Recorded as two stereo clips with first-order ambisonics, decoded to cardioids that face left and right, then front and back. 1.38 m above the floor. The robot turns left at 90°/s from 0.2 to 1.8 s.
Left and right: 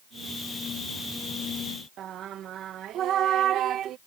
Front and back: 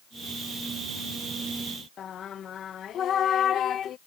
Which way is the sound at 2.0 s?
50° right.